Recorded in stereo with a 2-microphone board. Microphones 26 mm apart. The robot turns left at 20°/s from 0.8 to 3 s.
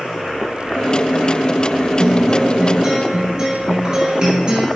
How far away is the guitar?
About 0.7 m.